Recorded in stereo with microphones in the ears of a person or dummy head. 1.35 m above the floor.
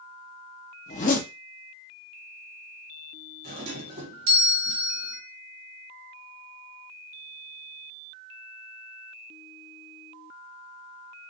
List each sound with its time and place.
0.9 s a zipper: 40° left (ahead or behind), 0.8 m
3.4 s a doorbell: 35° right (ahead or behind), 1.0 m